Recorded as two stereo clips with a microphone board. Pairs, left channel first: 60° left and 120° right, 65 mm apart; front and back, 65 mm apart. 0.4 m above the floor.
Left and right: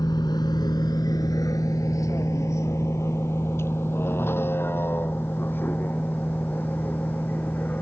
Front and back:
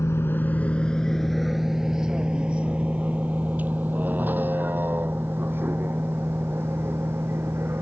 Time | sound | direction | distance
0.0 | a vehicle | 50° left | ?